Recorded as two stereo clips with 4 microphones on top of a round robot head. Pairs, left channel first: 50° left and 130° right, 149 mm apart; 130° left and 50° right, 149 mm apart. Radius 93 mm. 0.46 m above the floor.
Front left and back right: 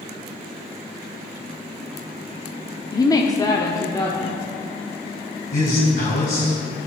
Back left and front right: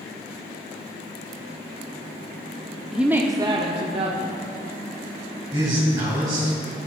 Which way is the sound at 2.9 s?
35° left.